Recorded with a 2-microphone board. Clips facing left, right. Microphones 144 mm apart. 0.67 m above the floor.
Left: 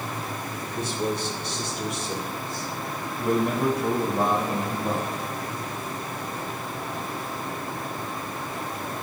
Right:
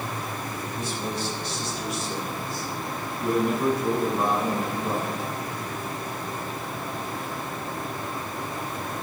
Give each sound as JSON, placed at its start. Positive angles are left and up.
{"t": 0.8, "sound": "a man speaking", "side_deg": 65, "distance_m": 2.5}